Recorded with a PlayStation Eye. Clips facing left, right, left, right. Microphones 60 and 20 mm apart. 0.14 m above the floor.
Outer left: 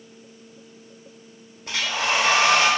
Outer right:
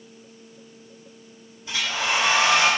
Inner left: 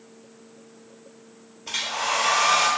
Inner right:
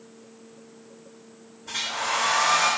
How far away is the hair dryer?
About 0.7 m.